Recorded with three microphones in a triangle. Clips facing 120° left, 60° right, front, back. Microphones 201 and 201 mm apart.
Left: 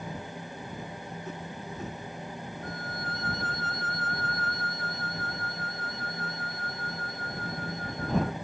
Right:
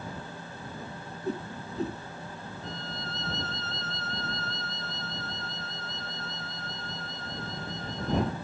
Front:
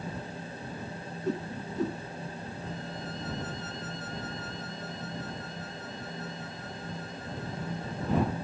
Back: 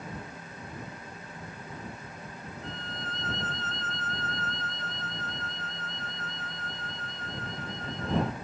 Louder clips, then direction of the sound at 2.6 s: Left 1 dB, front 1 dB; 80° left.